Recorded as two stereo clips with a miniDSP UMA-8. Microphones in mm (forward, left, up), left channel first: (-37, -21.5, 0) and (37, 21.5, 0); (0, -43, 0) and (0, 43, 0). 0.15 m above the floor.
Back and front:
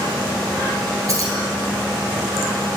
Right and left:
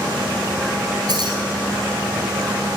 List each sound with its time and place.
1.1 s keys jangling: 75° left, 1.8 m